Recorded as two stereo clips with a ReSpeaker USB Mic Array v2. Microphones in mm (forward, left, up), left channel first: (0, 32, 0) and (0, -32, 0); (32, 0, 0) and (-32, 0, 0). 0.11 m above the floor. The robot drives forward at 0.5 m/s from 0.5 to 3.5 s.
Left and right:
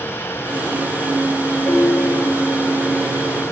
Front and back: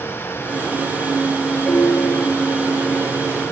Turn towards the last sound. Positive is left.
turn(degrees=100)